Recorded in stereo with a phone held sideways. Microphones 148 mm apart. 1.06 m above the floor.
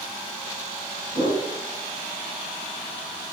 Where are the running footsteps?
I don't hear running footsteps.